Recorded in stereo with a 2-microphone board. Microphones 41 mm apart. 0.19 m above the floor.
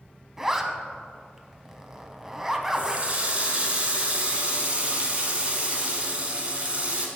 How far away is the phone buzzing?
No phone buzzing in this recording.